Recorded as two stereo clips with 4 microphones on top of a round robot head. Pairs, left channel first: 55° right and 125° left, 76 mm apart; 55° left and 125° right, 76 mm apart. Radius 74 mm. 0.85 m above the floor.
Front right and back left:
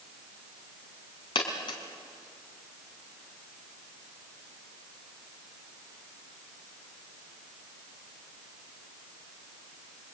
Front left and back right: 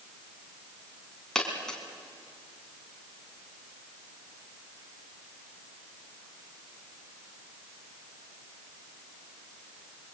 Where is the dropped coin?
25° right, 3 m.